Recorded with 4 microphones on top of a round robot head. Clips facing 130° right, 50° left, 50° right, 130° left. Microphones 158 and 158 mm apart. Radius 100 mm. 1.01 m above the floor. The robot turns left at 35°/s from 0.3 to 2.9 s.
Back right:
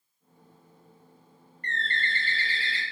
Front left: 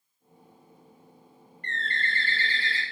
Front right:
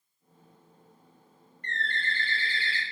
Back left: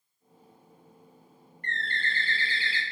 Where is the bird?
Straight behind, 0.6 m; by 2.8 s 135° left, 0.6 m.